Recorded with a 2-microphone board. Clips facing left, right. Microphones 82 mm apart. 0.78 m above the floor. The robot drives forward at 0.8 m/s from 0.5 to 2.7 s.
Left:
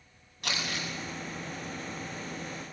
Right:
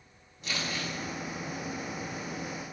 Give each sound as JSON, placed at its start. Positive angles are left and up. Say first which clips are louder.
{"t": 0.4, "sound": "crumpling", "louder": "even", "side_deg": 70, "distance_m": 7.0}